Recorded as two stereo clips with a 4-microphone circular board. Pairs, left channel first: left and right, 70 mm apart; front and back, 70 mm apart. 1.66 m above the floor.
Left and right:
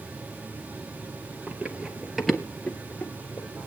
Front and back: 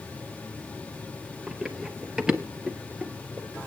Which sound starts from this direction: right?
Running footsteps, at 1.5 s.